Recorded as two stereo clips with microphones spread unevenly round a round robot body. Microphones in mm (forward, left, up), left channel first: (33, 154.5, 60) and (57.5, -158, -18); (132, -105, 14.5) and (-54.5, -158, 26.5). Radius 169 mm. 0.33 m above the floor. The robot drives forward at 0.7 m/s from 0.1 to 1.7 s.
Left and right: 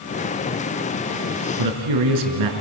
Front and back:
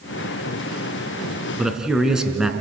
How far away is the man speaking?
About 4 m.